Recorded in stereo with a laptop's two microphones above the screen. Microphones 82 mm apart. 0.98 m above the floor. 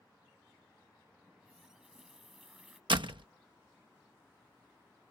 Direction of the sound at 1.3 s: 10° right (ahead or behind).